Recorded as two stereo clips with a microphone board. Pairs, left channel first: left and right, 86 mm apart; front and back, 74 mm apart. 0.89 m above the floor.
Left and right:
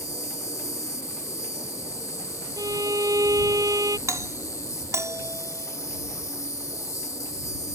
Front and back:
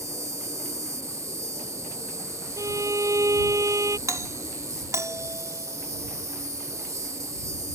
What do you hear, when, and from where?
0.0 s an insect: 140° left
2.6 s a violin: 135° right
4.1 s a doorbell: 140° right